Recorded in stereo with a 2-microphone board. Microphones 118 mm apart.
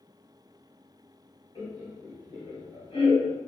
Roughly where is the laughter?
Left.